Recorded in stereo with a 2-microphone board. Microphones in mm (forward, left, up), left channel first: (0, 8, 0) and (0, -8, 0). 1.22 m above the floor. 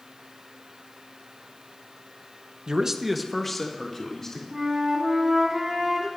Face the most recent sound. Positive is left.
turn(degrees=-40)  # may be behind; listen again after turning